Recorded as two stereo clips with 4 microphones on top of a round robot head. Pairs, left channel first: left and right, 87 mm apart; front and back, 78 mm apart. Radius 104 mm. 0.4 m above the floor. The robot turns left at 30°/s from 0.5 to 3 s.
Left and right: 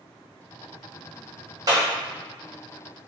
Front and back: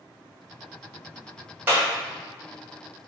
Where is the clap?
115° right, 1.2 m; by 1.9 s 125° right, 1.2 m.